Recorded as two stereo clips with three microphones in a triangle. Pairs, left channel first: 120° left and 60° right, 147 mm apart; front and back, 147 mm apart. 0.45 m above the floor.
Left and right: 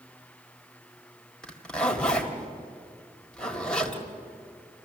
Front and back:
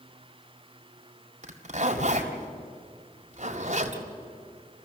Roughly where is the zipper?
Behind right.